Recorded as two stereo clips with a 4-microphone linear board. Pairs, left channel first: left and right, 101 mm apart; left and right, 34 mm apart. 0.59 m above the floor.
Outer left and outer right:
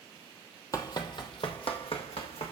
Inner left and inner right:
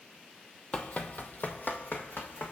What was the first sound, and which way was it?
Running footsteps, 35° left (ahead or behind).